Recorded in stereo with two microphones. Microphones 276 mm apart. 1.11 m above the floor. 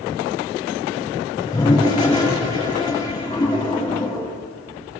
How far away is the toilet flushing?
About 6 m.